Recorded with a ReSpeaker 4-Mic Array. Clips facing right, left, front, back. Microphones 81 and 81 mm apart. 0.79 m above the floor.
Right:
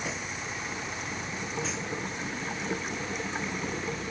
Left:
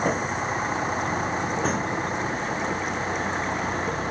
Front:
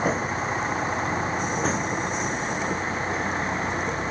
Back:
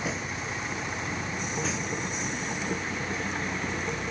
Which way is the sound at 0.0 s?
45° left.